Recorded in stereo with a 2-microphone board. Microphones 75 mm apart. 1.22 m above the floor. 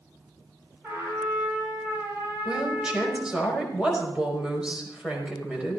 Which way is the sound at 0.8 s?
25° right (ahead or behind).